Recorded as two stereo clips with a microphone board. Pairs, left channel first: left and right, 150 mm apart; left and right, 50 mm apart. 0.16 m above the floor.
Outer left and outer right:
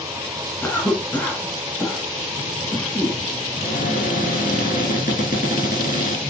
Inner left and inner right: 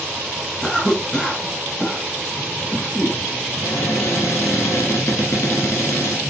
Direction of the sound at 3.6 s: 65° left (ahead or behind).